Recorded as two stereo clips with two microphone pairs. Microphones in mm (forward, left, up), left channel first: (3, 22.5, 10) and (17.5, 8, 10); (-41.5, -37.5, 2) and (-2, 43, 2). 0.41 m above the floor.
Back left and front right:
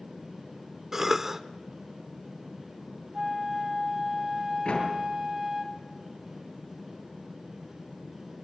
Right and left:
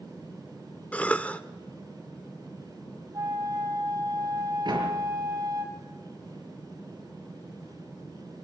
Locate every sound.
0.9 s a cough: 75° right, 0.8 m
3.1 s a flute: 10° left, 2.5 m
4.7 s a door slam: 100° left, 5 m